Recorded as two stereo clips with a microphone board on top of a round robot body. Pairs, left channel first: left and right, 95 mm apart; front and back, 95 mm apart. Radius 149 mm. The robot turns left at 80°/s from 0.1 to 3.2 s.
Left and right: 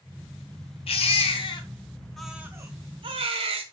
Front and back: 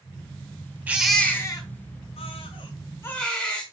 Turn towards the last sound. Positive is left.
turn(degrees=-80)